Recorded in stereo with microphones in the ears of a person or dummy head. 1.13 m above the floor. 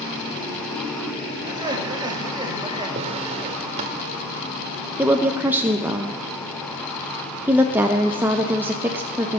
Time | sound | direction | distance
1.4 | laughter | 25° right (ahead or behind) | 1.7 m
3.0 | a drawer | 35° right (ahead or behind) | 1.1 m
5.0 | a woman speaking | 10° right (ahead or behind) | 0.7 m